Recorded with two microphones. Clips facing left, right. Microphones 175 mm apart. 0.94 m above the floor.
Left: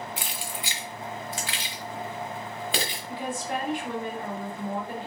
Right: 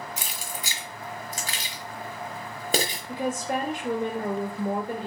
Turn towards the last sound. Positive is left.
turn(degrees=-45)  # may be behind; listen again after turning